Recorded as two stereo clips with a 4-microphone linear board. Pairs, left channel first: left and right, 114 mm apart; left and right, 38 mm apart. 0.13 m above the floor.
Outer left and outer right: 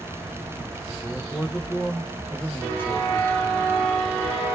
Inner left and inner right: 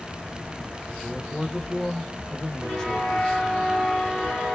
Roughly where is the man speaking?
Centre.